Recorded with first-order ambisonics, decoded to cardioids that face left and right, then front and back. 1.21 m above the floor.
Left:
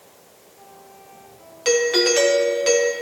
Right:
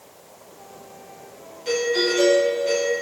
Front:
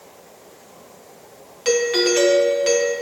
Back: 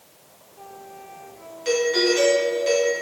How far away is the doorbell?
About 1.0 m.